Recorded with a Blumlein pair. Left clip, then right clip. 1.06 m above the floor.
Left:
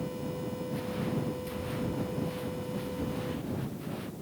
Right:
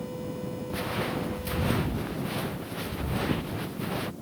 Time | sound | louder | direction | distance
0.7 | footsteps | right 7 dB | 60° right | ?